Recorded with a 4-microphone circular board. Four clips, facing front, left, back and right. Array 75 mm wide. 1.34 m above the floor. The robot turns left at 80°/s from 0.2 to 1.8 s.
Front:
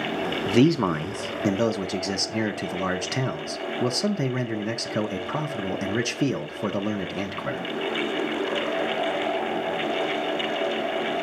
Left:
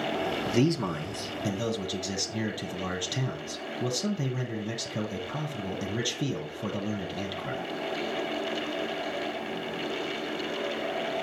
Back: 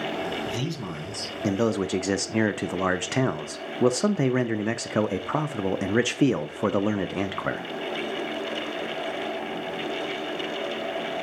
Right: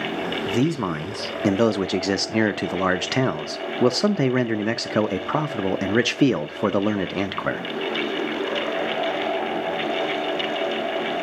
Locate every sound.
0.5 s a man speaking: 5° right, 0.6 m; by 7.6 s 110° right, 0.6 m